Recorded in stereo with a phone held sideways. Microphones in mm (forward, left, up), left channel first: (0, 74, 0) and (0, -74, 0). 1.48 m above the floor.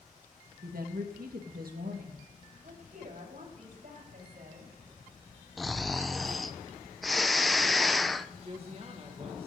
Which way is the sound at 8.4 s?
40° right (ahead or behind).